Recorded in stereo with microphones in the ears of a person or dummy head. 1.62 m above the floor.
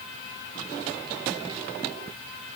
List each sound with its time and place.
Only background noise.